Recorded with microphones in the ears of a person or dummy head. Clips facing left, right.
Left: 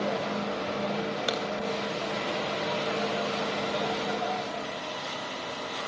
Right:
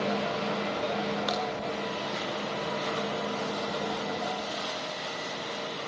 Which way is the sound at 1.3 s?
35° left (ahead or behind).